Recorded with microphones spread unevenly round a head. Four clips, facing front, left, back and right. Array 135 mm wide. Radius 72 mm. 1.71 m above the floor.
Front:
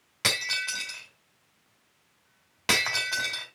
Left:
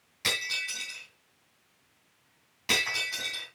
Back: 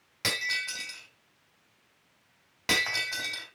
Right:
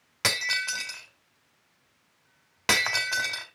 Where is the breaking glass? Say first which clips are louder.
Right 6 dB, front 2 dB; 75° right, 2 m.